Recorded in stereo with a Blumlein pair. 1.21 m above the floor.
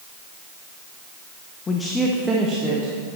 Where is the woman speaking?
20° left, 0.5 m; by 2.9 s 35° right, 1.1 m.